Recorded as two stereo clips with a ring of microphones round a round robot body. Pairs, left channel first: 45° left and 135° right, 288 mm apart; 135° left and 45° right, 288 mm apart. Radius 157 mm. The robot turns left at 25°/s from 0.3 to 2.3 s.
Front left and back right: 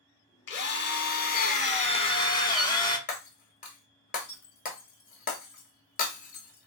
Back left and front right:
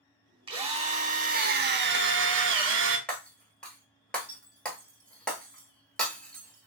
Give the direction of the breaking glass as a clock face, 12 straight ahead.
10 o'clock.